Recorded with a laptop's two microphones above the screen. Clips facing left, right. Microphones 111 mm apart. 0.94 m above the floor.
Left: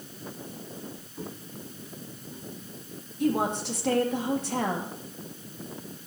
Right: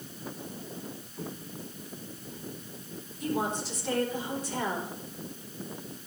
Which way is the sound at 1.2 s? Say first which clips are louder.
Even; 15° left (ahead or behind).